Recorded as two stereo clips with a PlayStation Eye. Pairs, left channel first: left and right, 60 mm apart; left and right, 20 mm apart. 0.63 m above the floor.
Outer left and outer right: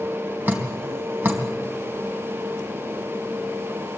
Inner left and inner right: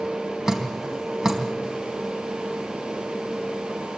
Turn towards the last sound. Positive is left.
turn(degrees=-35)  # may be behind; listen again after turning